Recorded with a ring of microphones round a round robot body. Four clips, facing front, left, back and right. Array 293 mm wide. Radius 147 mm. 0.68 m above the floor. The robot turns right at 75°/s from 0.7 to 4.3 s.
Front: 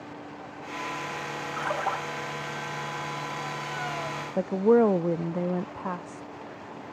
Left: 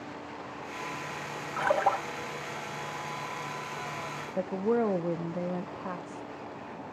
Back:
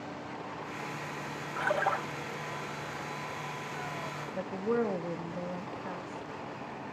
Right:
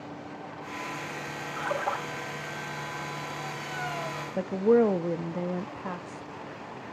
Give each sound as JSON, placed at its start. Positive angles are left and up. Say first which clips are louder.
{"t": 1.6, "sound": "a splash", "louder": "left 4 dB, even", "azimuth_deg": 85, "distance_m": 4.0}
{"t": 4.4, "sound": "a woman speaking", "louder": "right 6 dB, front 11 dB", "azimuth_deg": -15, "distance_m": 0.6}